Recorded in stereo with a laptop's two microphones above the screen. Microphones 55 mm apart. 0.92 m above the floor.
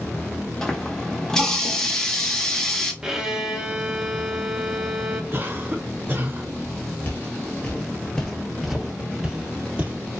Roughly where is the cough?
Right.